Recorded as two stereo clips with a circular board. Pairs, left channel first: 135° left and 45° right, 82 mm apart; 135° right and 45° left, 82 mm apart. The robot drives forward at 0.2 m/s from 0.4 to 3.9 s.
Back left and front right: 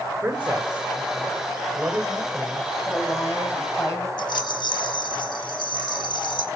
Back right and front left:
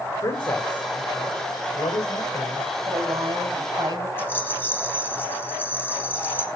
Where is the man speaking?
115° right, 2 m; by 2.7 s 125° right, 2.5 m.